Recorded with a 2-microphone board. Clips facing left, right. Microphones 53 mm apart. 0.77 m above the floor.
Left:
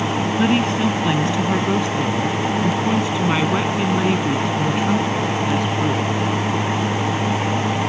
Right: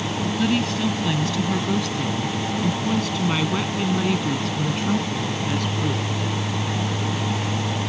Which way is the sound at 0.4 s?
30° left (ahead or behind).